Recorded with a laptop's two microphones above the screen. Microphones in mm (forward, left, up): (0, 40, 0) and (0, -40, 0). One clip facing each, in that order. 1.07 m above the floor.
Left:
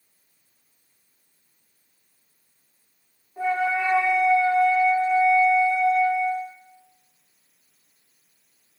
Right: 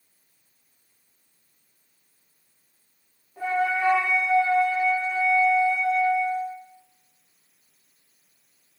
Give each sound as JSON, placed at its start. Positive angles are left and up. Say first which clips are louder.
{"t": 3.4, "sound": "a flute", "louder": "left 1 dB", "side_deg": 20, "distance_m": 1.1}